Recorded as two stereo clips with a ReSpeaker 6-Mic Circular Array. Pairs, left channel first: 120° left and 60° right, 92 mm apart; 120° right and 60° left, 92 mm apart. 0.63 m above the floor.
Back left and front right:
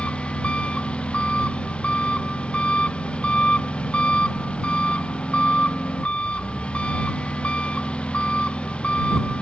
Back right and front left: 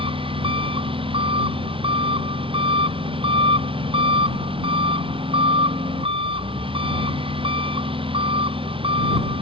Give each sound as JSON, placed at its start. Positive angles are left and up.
{"t": 0.0, "sound": "an engine running", "azimuth_deg": 40}